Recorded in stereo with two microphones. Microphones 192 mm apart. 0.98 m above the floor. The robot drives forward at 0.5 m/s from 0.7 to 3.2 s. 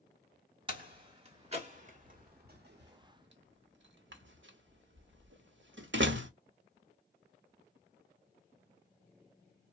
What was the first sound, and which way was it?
A door slam, 25° right (ahead or behind).